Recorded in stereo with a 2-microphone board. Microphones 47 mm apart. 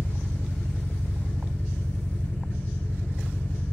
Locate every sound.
0.0 s an engine running: 45° left (ahead or behind), 2.5 m